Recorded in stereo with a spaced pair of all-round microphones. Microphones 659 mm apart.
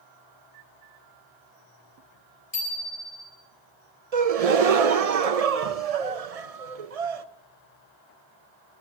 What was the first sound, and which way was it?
A bicycle bell, 60° left (ahead or behind).